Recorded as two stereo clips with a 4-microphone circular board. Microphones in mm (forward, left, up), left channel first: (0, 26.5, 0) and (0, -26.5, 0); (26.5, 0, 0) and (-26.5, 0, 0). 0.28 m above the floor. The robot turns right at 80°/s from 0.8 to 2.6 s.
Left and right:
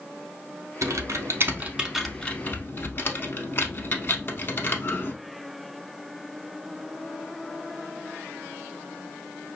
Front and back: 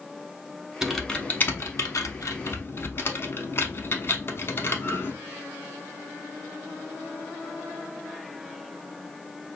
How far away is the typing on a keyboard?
About 0.6 m.